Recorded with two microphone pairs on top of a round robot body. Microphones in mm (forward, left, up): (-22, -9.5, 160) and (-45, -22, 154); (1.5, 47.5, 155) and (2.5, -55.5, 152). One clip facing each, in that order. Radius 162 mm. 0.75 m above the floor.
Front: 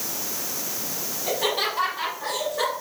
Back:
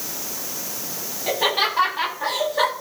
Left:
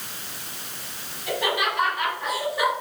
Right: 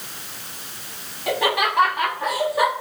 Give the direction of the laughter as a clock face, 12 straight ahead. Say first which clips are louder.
Back 4 dB, right 4 dB; 3 o'clock.